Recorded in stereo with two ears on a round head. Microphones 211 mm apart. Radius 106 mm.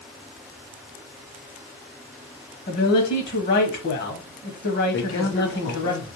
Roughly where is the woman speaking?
Left.